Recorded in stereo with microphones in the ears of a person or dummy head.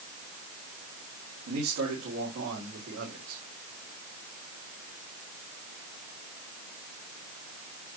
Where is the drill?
No drill in this recording.